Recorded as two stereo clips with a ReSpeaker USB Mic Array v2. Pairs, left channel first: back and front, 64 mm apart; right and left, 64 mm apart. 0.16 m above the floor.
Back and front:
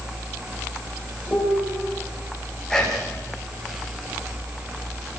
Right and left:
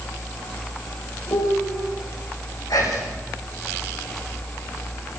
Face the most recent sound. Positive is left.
turn(degrees=-100)